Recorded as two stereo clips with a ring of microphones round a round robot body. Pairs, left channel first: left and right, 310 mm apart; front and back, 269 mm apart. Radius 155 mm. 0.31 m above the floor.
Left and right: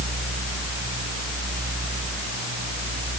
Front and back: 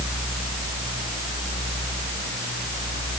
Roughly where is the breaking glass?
I don't hear breaking glass.